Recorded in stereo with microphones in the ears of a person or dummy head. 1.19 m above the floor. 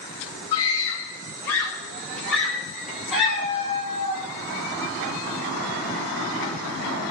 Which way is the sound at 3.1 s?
30° right (ahead or behind).